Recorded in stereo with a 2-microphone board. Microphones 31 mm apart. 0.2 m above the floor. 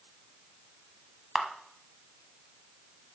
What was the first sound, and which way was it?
A camera shutter, 15° right (ahead or behind).